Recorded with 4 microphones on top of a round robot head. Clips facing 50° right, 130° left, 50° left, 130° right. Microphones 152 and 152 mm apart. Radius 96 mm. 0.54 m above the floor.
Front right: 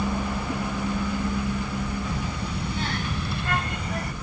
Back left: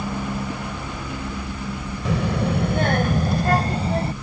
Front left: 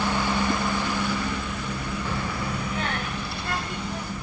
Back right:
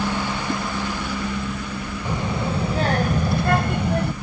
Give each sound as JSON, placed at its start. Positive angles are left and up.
{"t": 2.0, "sound": "a child speaking", "azimuth_deg": 155}